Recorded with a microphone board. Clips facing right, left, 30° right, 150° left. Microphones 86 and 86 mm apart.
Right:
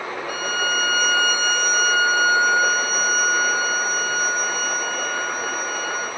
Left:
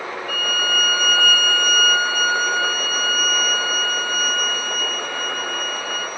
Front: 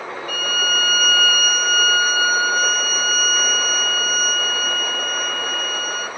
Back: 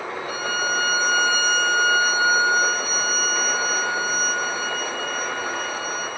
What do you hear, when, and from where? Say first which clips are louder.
0.3 s a violin: right 1 dB, front 1 dB; 155° right, 1.3 m